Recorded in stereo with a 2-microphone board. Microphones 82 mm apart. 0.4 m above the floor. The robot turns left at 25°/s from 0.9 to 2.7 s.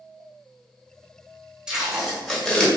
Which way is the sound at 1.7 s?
10° right (ahead or behind).